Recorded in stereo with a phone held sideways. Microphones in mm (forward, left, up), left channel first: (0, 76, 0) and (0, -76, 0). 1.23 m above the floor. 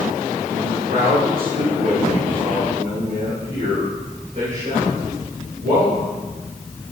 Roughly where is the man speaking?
Right.